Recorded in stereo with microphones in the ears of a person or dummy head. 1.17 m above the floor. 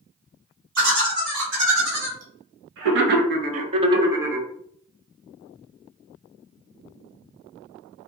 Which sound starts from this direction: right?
Laughter, at 0.8 s.